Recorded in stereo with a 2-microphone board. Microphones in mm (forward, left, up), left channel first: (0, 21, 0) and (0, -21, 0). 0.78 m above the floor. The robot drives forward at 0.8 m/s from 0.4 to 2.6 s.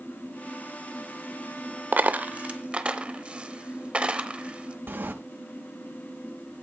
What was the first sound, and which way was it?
A dropped coin, 45° right (ahead or behind).